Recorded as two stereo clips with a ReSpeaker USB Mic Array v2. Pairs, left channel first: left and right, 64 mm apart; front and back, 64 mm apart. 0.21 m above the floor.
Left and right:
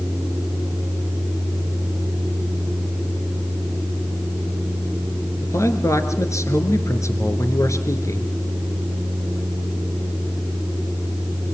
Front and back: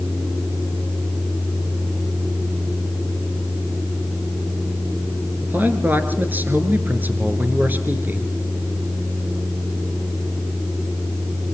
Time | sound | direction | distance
5.4 | a man speaking | 120° left | 3 m